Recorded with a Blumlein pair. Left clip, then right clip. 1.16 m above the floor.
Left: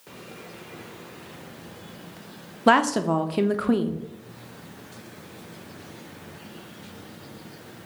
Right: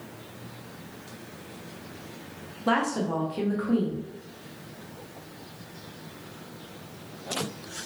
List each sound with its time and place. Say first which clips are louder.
2.7 s a woman speaking: left 7 dB; 60° left, 0.5 m